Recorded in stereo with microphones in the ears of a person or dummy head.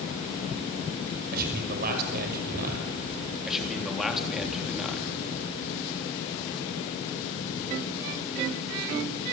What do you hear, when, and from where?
1.3 s a man speaking: 50° right (ahead or behind), 5.5 m
3.5 s a man speaking: 5° right (ahead or behind), 3.5 m